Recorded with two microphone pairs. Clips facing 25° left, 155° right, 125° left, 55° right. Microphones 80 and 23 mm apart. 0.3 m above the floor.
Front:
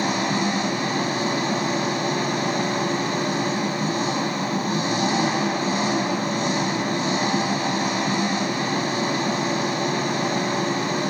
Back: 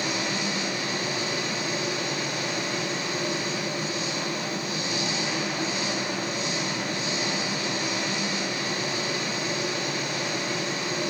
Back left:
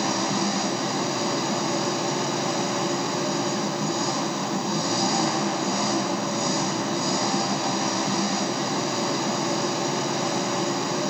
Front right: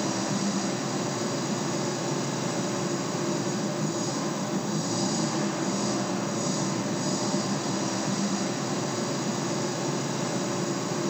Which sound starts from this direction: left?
An engine running, at 0.0 s.